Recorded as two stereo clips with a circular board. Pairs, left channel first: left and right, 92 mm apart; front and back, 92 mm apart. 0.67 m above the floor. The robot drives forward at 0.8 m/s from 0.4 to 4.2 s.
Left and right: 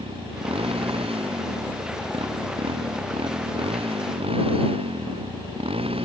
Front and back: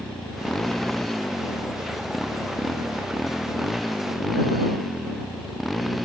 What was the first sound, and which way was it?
A motorcycle, 85° right.